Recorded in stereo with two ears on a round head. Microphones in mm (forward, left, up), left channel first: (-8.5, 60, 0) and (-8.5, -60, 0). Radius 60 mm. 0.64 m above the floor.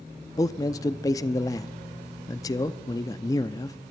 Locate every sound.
0.4 s a man speaking: 25° left (ahead or behind), 0.5 m